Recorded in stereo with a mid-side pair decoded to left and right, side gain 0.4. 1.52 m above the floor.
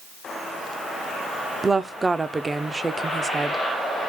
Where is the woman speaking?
25° right, 0.5 m.